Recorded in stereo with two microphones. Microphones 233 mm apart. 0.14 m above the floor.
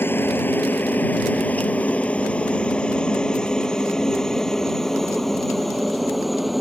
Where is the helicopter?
10° left (ahead or behind); by 6.6 s centre (ahead or behind).